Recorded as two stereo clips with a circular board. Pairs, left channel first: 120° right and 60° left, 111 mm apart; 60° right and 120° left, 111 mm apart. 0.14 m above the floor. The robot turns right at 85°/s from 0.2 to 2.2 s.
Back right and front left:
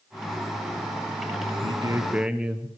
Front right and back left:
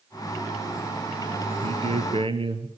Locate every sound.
1.6 s a man speaking: 95° left, 2.0 m; by 2.7 s 140° left, 2.0 m